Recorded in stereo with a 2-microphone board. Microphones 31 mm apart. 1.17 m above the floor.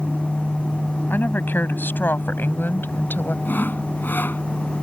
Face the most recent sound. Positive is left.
turn(degrees=75)  # may be behind; listen again after turning